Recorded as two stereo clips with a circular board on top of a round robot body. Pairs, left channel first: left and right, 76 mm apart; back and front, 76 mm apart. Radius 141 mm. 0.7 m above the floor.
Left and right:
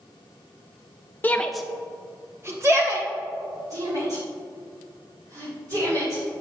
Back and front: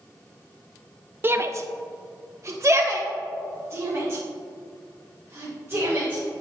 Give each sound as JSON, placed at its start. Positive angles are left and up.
{"t": 1.2, "sound": "a shout", "azimuth_deg": 40, "distance_m": 0.5}